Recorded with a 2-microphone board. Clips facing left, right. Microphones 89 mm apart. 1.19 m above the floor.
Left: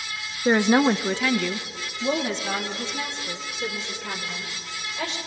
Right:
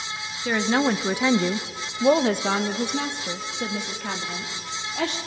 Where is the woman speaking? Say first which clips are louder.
Left 4 dB; 30° left (ahead or behind), 0.7 m; by 5.2 s 70° right (ahead or behind), 3 m.